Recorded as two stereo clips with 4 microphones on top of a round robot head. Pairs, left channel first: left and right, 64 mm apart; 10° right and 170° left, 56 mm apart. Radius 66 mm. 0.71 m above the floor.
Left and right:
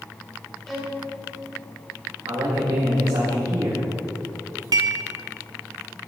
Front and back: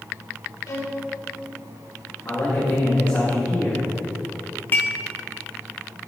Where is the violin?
5° left, 3 m.